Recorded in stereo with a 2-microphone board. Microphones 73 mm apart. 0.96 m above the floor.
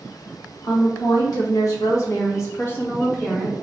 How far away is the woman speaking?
About 1.6 m.